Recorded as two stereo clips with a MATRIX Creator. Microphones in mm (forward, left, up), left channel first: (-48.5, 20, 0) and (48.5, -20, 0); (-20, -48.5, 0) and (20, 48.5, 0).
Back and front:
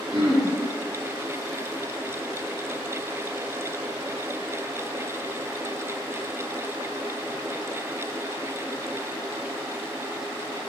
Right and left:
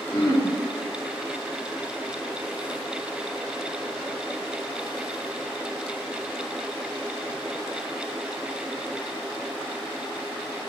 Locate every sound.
0.1 s throat clearing: 60° right, 1.6 m